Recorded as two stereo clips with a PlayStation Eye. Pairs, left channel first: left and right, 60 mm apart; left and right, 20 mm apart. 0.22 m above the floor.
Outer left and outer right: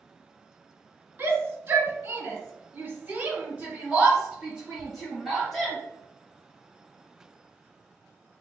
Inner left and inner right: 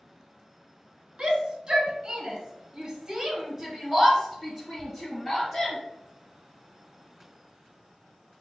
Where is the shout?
30° right (ahead or behind), 1.5 m; by 5.8 s 5° right (ahead or behind), 1.8 m.